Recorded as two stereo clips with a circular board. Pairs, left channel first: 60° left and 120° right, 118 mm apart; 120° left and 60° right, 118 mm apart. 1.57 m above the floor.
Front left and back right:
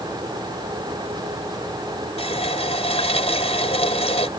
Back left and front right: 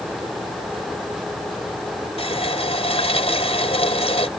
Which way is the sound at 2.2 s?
90° left.